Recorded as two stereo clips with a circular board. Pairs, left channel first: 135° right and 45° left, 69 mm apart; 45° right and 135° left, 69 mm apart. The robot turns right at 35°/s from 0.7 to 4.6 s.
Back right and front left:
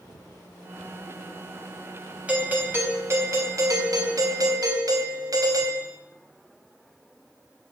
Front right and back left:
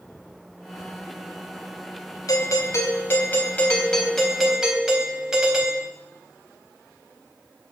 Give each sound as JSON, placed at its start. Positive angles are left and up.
{"t": 2.3, "sound": "a doorbell", "azimuth_deg": -25, "distance_m": 3.0}